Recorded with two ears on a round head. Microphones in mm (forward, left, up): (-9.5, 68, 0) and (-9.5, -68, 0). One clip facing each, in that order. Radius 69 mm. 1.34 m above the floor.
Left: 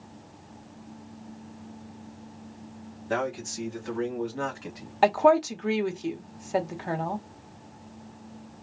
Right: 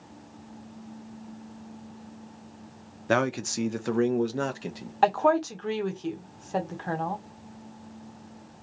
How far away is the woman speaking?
About 1.2 m.